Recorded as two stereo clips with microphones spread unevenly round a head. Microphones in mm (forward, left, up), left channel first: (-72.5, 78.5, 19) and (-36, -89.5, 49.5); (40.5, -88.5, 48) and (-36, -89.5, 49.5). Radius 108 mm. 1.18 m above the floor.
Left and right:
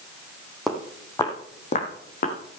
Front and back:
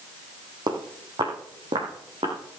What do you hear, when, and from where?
0.7 s footsteps: 165° right, 2 m; by 2.4 s 135° left, 2.5 m